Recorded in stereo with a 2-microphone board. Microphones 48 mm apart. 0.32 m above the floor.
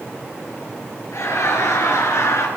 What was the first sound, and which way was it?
Laughter, 80° left.